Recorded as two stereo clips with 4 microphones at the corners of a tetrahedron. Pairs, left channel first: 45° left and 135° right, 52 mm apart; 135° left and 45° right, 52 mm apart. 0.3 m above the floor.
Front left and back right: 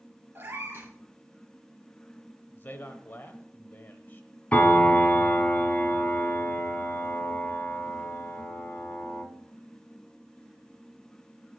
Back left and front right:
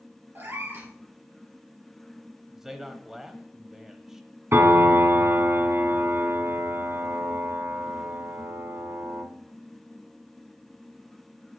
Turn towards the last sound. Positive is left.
turn(degrees=-20)